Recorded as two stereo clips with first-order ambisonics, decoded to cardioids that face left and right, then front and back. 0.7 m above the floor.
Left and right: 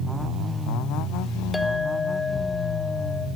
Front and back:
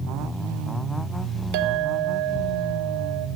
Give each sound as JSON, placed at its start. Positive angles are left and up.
{"t": 1.5, "sound": "a clink", "azimuth_deg": 180, "distance_m": 0.9}